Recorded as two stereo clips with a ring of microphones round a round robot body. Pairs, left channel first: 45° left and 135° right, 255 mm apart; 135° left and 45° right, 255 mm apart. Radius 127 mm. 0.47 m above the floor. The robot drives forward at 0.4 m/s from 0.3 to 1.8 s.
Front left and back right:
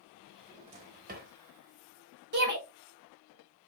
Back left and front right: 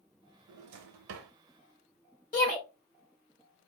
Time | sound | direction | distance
0.5 | a drawer | 60° right | 0.9 m
2.3 | a shout | 175° right | 2.0 m